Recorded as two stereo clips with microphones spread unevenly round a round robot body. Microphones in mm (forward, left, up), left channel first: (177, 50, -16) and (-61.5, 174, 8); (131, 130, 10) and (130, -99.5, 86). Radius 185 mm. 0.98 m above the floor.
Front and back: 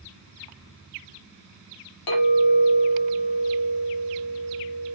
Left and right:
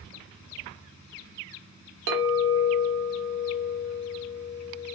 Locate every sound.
2.1 s a clink: 60° right, 1.1 m